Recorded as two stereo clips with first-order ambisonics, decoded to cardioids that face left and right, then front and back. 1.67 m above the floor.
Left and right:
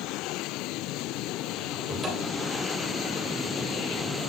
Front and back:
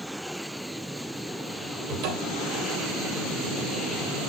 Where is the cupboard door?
175° right, 2.5 m.